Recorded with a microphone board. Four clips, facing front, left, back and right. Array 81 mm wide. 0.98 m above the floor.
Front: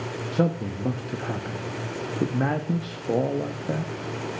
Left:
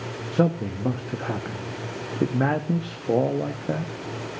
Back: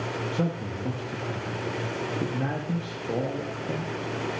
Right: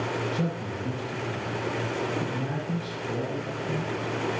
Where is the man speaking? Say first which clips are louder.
Left 7 dB, front 8 dB; 65° left, 1.2 m.